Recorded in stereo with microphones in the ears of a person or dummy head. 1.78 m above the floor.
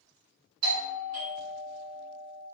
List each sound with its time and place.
0.6 s a doorbell: 85° right, 1.4 m